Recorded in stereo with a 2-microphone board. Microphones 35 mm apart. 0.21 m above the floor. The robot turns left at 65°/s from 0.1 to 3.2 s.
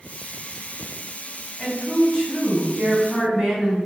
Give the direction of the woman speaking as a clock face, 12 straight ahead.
9 o'clock.